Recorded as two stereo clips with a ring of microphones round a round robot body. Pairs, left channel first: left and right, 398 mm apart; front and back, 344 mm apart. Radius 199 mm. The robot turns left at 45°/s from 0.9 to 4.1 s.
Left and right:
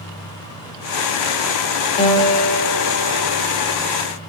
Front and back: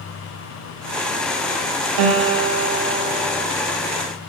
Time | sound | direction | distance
2.0 | a guitar | 165° left | 0.9 m